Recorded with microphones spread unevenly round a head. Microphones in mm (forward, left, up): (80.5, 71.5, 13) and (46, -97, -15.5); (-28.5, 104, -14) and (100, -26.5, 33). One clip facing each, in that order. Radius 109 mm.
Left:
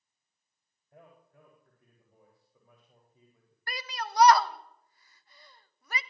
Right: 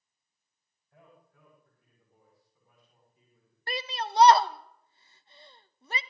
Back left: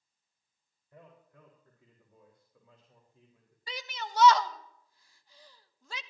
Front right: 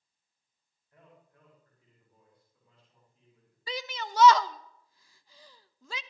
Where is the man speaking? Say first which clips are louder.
Left 3 dB, back left 4 dB; 145° left, 3.5 m; by 3.6 s 120° left, 3.5 m.